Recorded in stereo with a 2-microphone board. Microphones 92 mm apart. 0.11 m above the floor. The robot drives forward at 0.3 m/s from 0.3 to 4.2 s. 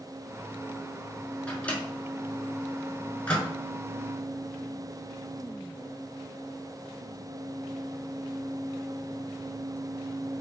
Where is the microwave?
15° left (ahead or behind), 1.0 m.